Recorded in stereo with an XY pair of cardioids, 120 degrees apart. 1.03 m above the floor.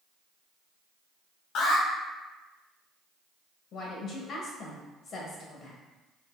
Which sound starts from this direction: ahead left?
A woman speaking, at 3.7 s.